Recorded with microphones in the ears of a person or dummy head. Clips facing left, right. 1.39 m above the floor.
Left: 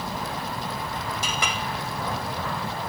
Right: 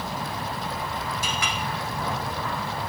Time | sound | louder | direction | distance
1.2 | a clink | left 1 dB | 70° left (ahead or behind) | 1.2 m